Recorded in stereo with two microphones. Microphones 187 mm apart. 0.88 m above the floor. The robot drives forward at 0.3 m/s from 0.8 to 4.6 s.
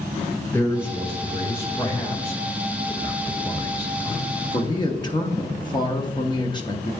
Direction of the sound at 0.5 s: 15° left (ahead or behind).